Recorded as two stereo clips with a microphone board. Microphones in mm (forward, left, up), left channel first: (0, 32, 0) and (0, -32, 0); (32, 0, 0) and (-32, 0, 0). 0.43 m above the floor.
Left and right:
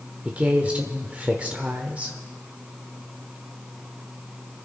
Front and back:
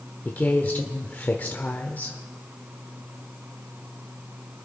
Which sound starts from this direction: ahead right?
A woman speaking, at 0.2 s.